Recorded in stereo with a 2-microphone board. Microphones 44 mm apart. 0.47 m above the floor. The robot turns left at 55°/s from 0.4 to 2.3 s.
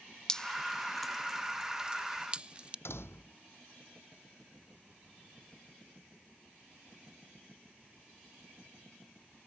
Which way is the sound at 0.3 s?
15° left (ahead or behind).